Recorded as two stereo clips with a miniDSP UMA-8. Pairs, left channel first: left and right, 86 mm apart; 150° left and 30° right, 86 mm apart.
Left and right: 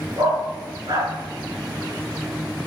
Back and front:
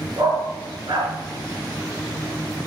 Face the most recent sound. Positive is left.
turn(degrees=-55)